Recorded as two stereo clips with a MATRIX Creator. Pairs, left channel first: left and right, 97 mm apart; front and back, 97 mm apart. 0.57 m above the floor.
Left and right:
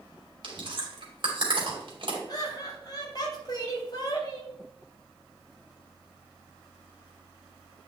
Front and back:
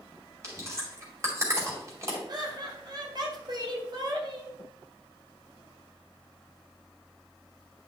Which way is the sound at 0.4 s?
125° right.